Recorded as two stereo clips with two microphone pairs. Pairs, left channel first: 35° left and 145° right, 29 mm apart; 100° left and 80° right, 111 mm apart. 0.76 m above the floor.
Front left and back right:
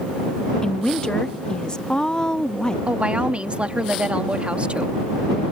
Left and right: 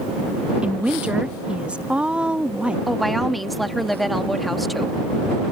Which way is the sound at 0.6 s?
10° right.